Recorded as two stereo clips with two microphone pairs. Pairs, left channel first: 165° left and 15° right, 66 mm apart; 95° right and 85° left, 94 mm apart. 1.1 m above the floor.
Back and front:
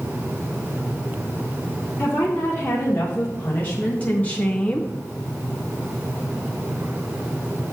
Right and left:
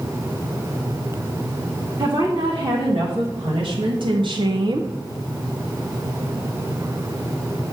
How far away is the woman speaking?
About 1.9 m.